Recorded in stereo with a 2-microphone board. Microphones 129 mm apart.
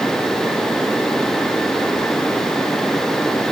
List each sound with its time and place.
Only background noise.